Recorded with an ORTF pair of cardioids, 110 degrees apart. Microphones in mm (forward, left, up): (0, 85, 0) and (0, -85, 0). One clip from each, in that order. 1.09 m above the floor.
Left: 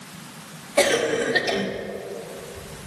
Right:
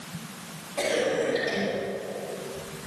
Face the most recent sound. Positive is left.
turn(degrees=60)